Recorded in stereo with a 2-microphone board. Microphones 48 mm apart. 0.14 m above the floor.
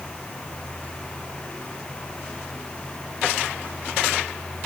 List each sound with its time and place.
Only background noise.